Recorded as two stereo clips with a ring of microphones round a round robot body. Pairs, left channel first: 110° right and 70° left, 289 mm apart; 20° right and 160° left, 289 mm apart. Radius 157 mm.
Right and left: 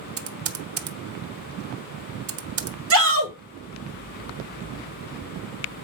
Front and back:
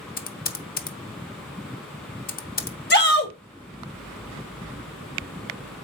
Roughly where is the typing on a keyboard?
Ahead left.